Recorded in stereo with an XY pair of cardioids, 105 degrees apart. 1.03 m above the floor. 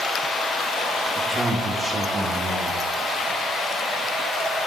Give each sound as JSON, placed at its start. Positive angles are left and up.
{"t": 1.2, "sound": "a man speaking", "azimuth_deg": -25, "distance_m": 2.5}